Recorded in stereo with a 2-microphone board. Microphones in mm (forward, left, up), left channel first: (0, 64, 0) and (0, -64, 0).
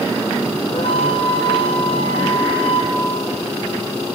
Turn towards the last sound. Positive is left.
turn(degrees=50)  # may be behind; listen again after turning